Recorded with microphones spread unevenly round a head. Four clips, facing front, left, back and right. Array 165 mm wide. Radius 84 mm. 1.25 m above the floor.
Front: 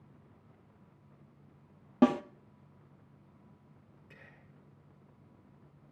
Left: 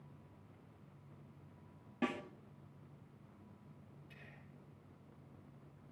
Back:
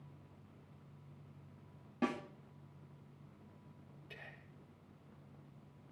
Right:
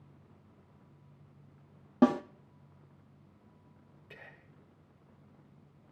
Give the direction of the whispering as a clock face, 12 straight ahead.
3 o'clock.